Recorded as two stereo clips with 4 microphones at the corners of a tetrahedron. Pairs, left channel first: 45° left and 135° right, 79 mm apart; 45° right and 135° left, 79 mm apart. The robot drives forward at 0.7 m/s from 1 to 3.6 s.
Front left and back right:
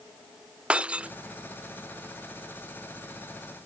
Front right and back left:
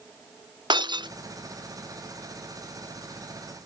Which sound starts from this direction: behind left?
Breaking glass, at 0.7 s.